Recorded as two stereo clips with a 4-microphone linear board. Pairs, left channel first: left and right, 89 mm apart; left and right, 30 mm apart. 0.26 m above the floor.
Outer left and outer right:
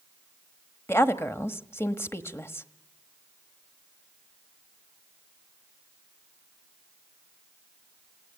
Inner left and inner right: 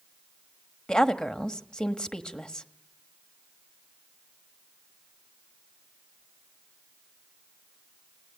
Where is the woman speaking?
25° left (ahead or behind), 1.1 m.